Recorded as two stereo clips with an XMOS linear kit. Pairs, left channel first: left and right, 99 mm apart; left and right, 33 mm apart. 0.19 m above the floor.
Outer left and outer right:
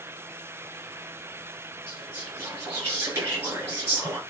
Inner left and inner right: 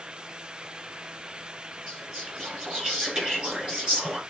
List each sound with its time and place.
1.9 s whispering: 25° right (ahead or behind), 3 m